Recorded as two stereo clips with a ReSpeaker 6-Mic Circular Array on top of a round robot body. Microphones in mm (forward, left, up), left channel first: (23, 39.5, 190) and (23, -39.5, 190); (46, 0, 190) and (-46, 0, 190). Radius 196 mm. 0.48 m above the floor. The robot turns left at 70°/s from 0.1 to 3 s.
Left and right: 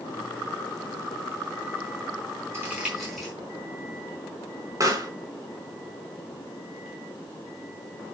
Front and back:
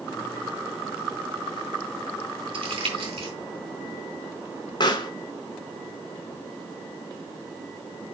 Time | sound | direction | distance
2.5 | crumpling | 150° right | 4.5 m
4.8 | a pop | 45° right | 1.9 m